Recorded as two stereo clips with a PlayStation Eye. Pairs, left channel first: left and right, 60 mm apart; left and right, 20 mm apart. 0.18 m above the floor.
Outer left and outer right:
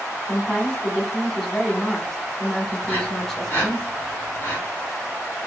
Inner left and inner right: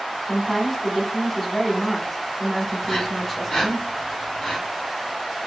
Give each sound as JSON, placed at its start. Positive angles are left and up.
{"t": 0.3, "sound": "a woman speaking", "side_deg": 5, "distance_m": 1.2}
{"t": 2.8, "sound": "breathing", "side_deg": 40, "distance_m": 2.0}